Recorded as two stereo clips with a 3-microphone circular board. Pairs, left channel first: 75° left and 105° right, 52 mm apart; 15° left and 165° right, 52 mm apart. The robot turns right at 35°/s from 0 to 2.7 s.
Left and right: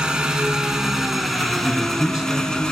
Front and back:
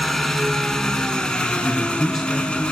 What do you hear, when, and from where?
0.0 s an engine running: 65° right, 0.8 m; by 2.7 s 25° left, 0.8 m
1.6 s a man speaking: 85° right, 1.0 m; by 2.6 s 50° right, 1.0 m